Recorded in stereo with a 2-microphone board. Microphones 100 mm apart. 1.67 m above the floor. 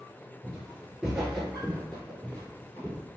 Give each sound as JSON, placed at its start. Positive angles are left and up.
{"t": 0.4, "sound": "footsteps", "side_deg": -20, "distance_m": 1.7}